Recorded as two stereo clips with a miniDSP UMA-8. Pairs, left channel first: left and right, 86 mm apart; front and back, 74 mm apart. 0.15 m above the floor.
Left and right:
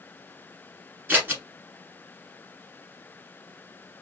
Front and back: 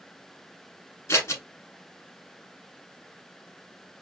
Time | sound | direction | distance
1.1 | scissors | 35° right | 1.2 m